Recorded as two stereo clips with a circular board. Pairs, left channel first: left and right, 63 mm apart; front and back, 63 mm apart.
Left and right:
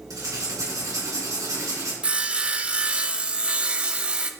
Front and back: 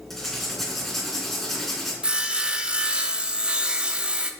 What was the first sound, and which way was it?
Writing, 85° right.